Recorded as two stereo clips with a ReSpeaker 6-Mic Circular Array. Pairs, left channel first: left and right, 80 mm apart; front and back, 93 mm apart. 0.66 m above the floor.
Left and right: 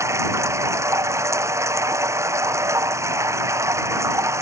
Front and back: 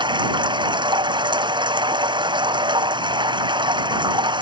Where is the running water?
145° right.